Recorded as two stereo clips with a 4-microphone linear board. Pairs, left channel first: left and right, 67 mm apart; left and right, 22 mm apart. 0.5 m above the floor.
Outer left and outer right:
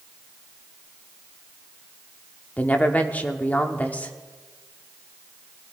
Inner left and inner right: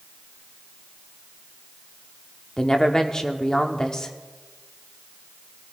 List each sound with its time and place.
2.6 s a woman speaking: 25° left (ahead or behind), 0.9 m